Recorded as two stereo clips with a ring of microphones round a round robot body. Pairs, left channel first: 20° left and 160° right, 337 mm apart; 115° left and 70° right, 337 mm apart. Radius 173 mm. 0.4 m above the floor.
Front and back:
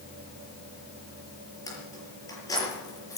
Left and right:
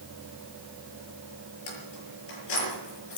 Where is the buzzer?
No buzzer in this recording.